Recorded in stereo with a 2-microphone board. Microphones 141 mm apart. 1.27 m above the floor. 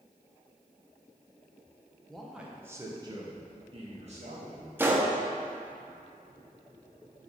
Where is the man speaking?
5° left (ahead or behind), 0.9 m; by 4.7 s 55° right (ahead or behind), 1.8 m.